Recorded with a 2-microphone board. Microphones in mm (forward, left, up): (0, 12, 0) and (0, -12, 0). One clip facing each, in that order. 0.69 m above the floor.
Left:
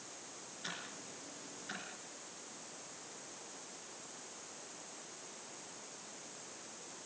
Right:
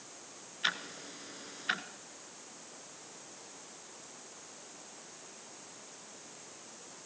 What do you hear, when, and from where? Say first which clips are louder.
0.6 s ticking: right 11 dB; 55° right (ahead or behind), 1.4 m